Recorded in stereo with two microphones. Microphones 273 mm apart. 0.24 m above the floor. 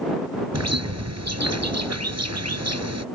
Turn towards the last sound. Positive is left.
turn(degrees=-70)  # may be behind; listen again after turning